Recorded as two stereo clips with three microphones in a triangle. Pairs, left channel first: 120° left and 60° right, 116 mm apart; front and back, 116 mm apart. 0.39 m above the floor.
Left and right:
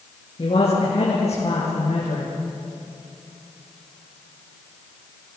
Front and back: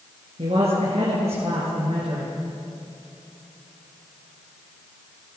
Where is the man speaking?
155° left, 5 m; by 2.3 s 145° left, 6 m.